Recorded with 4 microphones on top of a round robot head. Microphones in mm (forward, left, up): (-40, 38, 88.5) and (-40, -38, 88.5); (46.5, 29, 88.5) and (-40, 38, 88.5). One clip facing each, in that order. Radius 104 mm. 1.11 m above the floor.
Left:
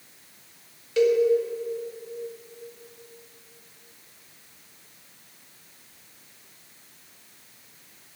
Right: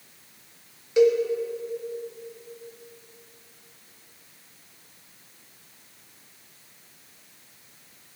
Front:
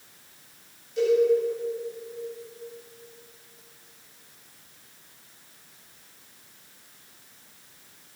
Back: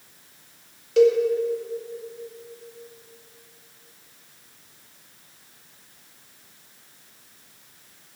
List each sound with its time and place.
1.0 s a cowbell: 165° right, 2 m